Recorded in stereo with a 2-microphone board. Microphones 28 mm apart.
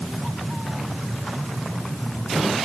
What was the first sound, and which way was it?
Only background noise.